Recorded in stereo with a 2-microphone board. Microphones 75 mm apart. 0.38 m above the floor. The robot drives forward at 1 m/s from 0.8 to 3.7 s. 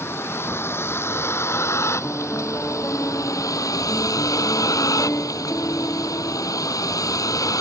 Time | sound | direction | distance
0.0 | a vehicle | 35° left (ahead or behind) | ?
2.0 | a piano | 20° left (ahead or behind) | ?